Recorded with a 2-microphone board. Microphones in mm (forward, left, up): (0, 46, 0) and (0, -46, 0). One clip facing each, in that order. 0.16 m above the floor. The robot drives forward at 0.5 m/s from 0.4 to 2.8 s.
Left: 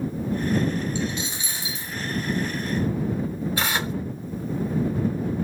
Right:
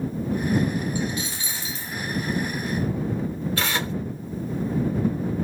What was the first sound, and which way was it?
A dropped coin, 25° left (ahead or behind).